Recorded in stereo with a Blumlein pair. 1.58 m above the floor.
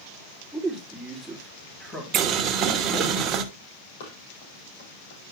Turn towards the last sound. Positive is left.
turn(degrees=50)